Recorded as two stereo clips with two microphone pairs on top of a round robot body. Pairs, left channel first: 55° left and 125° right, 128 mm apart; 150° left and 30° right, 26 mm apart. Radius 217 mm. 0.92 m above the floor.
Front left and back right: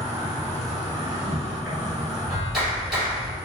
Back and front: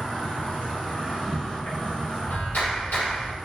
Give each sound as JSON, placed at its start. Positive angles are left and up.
{"t": 0.0, "sound": "an insect", "azimuth_deg": 150, "distance_m": 2.0}
{"t": 2.3, "sound": "a clap", "azimuth_deg": 145, "distance_m": 2.0}